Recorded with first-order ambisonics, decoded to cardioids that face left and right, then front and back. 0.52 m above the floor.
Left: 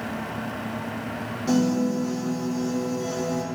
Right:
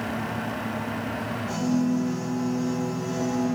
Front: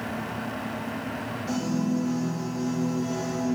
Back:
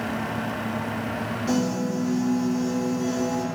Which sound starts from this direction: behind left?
A piano, at 1.5 s.